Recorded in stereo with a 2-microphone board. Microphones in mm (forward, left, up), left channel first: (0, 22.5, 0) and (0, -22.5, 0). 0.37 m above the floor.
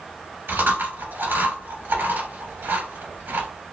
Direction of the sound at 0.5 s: 60° right (ahead or behind).